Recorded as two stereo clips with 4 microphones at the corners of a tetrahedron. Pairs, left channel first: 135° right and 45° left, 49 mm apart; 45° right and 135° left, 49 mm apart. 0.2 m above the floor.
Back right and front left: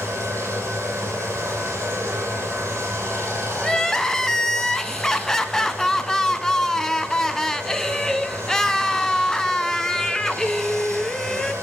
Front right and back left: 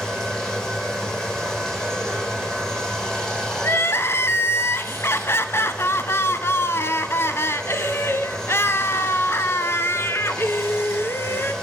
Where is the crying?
55° right, 1.0 m.